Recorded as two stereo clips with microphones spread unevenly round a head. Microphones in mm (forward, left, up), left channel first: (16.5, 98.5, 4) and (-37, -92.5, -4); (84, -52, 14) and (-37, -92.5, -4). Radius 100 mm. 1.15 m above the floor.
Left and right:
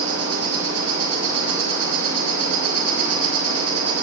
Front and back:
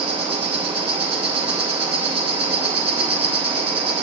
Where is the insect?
120° right, 5 m.